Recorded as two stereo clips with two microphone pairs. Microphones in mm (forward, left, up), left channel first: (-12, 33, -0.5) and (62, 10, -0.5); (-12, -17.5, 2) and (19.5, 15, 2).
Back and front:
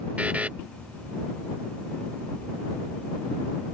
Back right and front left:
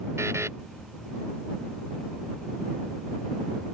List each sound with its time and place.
0.2 s a buzzer: 55° left